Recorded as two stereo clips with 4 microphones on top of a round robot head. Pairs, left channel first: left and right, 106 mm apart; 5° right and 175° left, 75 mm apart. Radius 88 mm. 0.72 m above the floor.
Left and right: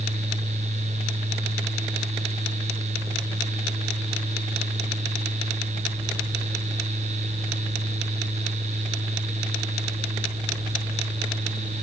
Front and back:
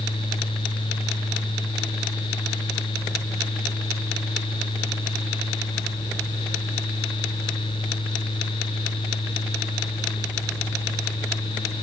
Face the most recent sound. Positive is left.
No sound to turn to.